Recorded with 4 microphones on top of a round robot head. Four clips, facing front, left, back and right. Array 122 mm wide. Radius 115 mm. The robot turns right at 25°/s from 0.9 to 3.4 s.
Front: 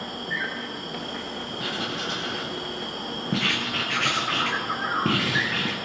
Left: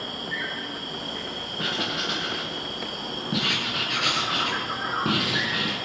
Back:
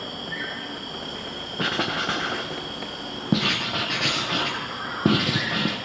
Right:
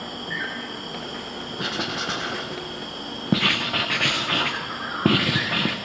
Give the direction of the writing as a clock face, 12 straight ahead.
6 o'clock.